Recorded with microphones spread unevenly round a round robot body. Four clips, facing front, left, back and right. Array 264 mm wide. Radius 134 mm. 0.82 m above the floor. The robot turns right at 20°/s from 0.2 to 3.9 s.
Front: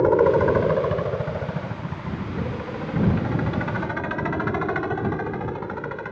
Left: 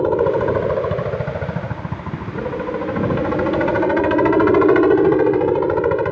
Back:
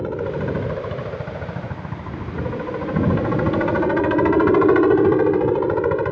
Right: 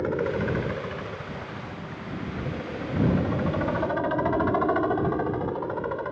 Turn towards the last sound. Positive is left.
turn(degrees=115)